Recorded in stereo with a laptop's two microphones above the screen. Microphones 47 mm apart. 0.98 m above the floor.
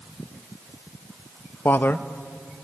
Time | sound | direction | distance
1.6 | a man speaking | 45° left (ahead or behind) | 0.6 m